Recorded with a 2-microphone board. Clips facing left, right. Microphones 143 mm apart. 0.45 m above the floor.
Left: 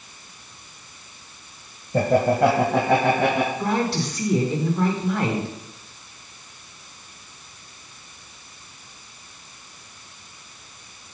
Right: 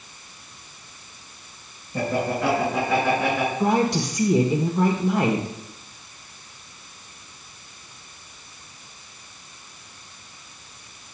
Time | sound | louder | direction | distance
1.9 | laughter | left 6 dB | 60° left (ahead or behind) | 1.5 m
3.6 | a woman speaking | right 3 dB | 20° right (ahead or behind) | 1.1 m